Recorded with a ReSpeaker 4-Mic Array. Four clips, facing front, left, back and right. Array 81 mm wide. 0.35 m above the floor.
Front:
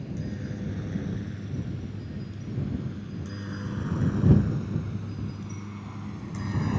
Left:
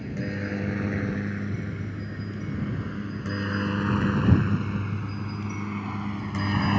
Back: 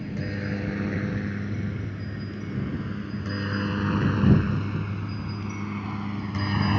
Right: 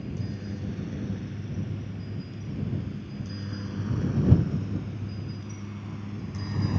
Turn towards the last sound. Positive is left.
turn(degrees=120)